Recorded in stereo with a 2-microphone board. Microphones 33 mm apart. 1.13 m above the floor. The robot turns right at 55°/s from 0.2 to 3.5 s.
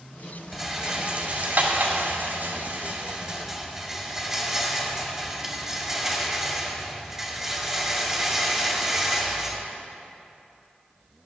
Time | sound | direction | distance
0.5 | a rattle | centre (ahead or behind) | 2.0 m